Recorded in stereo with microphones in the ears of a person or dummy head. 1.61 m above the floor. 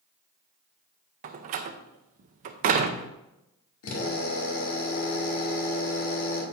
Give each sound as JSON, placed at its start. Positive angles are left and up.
{"t": 1.2, "sound": "a door slam", "side_deg": -35, "distance_m": 0.6}
{"t": 3.8, "sound": "a drill", "side_deg": 75, "distance_m": 2.5}